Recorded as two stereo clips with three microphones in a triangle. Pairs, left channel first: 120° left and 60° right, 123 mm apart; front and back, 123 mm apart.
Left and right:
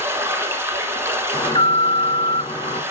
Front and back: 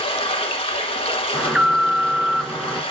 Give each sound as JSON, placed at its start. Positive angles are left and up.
{"t": 0.0, "sound": "running water", "azimuth_deg": 5, "distance_m": 1.4}
{"t": 1.3, "sound": "an alarm", "azimuth_deg": 95, "distance_m": 1.2}